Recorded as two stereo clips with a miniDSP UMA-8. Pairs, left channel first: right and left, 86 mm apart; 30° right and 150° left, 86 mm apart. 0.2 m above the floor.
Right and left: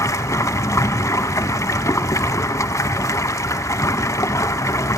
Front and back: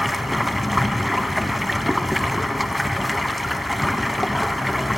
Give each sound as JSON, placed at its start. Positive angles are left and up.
{"t": 0.0, "sound": "running water", "azimuth_deg": -120, "distance_m": 0.7}